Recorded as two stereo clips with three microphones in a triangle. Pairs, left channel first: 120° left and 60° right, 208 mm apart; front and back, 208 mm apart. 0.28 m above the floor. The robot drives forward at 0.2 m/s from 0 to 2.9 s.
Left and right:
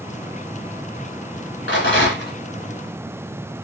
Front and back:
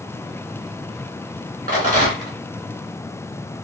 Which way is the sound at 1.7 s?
135° left.